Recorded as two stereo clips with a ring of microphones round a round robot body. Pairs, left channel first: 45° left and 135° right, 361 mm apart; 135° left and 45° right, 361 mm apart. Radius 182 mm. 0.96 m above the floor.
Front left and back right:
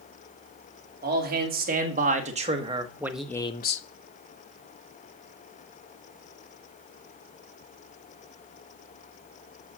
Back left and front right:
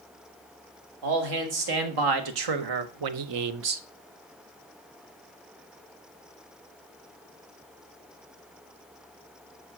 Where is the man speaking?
70° right, 2.5 m; by 3.8 s 20° left, 0.5 m.